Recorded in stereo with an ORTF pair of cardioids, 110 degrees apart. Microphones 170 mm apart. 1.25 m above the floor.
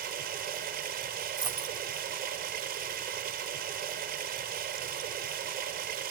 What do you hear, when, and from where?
0.0 s running water: 65° right, 8 m
1.4 s a dropped coin: 25° right, 2.5 m